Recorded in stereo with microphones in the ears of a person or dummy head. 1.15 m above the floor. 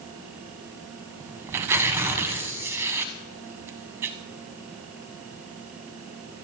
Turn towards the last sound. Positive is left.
turn(degrees=-20)  # may be behind; listen again after turning